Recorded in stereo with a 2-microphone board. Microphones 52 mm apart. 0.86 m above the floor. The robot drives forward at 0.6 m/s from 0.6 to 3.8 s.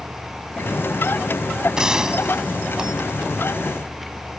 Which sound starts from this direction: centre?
A gunshot, at 1.8 s.